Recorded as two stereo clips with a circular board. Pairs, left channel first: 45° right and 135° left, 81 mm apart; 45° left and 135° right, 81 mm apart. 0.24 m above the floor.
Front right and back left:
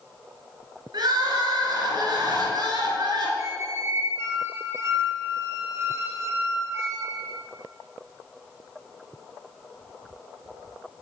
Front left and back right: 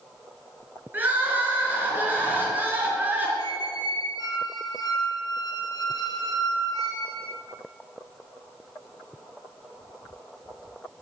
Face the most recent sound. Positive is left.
turn(degrees=80)